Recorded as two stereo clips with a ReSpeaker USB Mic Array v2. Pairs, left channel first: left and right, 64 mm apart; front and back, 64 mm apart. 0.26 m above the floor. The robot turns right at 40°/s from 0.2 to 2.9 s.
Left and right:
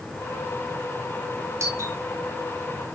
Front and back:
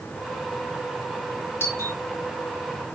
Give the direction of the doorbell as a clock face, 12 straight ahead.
2 o'clock.